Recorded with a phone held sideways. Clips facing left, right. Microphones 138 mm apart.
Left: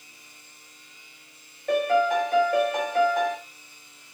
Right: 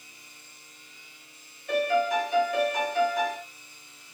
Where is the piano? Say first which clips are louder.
Left 3 dB; 60° left (ahead or behind), 1.1 m.